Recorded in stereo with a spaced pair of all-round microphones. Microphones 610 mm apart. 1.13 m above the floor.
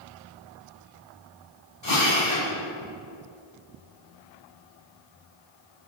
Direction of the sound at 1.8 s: 45° left (ahead or behind).